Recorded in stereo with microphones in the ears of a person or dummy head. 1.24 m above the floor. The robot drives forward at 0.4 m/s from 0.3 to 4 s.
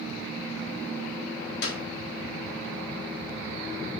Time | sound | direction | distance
1.6 | a clap | 75° left (ahead or behind) | 2 m